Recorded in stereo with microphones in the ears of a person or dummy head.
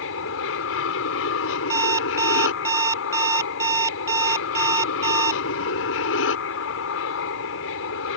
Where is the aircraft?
70° left (ahead or behind).